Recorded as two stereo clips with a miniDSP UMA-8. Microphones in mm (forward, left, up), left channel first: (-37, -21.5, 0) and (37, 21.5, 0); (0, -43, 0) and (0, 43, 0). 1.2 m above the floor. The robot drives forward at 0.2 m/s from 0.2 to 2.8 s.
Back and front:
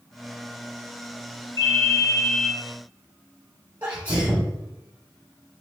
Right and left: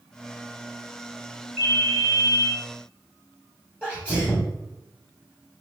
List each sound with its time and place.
1.6 s a ringtone: 160° left, 1.0 m
3.8 s a sneeze: 25° right, 0.6 m